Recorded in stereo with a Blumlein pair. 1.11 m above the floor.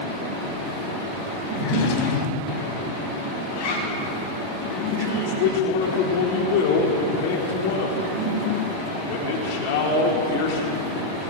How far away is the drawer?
About 3.5 m.